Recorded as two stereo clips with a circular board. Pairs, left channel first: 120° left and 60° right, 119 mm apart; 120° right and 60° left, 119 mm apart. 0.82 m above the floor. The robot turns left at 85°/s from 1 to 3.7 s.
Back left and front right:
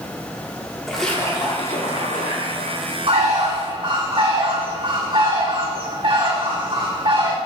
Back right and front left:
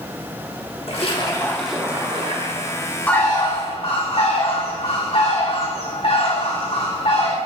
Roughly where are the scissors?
I don't hear scissors.